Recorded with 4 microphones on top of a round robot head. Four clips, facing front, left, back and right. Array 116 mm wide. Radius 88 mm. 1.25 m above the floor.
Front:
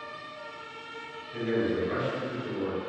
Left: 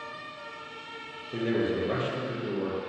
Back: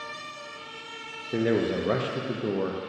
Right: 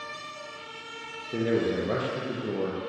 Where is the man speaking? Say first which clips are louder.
Right 2 dB, back 3 dB; 170° right, 0.8 m.